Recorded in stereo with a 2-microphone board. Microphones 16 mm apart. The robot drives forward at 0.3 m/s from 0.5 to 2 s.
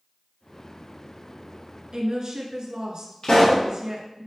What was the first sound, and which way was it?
A woman speaking, 50° right (ahead or behind).